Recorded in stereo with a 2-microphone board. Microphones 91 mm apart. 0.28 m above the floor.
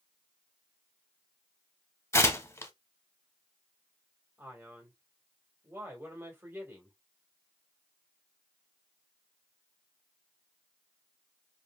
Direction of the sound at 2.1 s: 30° left (ahead or behind).